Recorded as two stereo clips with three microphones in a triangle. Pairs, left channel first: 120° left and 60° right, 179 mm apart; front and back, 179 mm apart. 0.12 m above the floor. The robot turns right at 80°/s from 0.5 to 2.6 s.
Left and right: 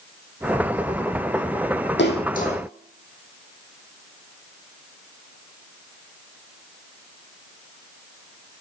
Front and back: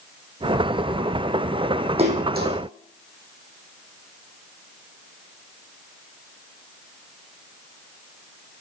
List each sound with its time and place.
2.0 s a splash: 125° left, 0.9 m; by 2.6 s 175° left, 0.9 m